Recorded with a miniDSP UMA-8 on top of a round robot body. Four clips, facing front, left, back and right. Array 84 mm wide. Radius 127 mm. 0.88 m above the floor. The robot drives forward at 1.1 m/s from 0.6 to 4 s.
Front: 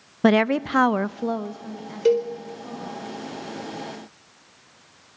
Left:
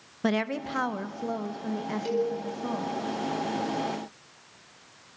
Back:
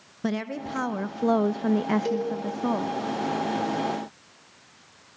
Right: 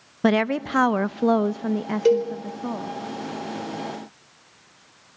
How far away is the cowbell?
About 4.5 m.